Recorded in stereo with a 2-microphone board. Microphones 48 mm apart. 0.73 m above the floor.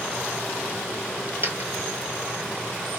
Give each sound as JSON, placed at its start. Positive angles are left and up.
{"t": 1.4, "sound": "a dropped coin", "side_deg": -40, "distance_m": 1.7}